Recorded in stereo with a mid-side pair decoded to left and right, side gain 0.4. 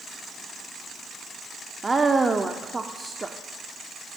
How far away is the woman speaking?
About 0.6 m.